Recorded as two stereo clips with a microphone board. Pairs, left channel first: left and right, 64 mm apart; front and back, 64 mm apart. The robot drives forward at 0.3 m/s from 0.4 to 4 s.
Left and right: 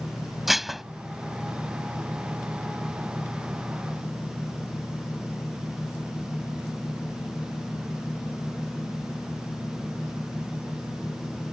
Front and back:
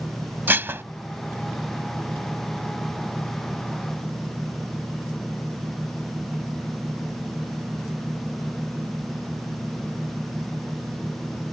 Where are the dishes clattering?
175° right.